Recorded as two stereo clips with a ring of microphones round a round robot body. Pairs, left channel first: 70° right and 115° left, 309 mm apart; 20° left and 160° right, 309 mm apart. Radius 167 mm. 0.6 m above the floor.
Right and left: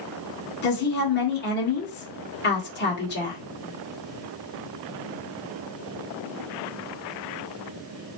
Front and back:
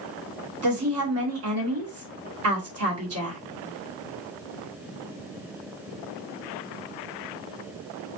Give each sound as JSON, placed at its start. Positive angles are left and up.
{"t": 0.6, "sound": "a woman speaking", "azimuth_deg": -120, "distance_m": 1.4}